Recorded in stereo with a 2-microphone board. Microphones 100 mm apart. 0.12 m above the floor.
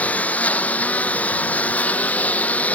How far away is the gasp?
I don't hear a gasp.